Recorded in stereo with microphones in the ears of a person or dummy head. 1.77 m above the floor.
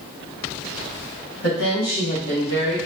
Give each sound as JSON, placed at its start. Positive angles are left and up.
{"t": 1.4, "sound": "a woman speaking", "side_deg": 55, "distance_m": 1.7}